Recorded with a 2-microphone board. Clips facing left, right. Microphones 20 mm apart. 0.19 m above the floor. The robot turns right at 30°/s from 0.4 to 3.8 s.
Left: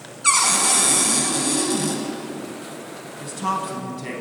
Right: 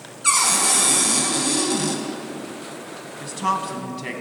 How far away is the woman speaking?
About 1.6 m.